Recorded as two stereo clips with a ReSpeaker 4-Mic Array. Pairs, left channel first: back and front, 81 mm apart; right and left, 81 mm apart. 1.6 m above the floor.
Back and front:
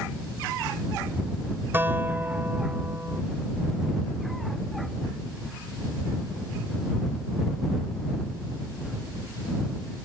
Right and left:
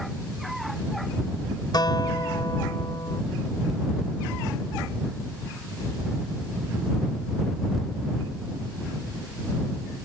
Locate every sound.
1.7 s a guitar: 65° right